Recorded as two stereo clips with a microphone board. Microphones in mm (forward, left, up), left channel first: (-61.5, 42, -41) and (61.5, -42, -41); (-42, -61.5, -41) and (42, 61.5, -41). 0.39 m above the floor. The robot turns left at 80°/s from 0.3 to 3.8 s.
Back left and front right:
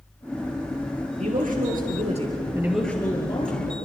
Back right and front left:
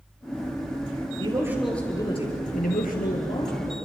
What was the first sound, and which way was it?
A man speaking, 5° left.